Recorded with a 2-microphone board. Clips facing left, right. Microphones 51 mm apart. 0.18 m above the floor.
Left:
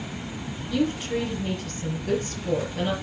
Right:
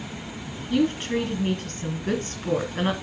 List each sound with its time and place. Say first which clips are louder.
0.7 s a woman speaking: right 2 dB; 45° right (ahead or behind), 2.5 m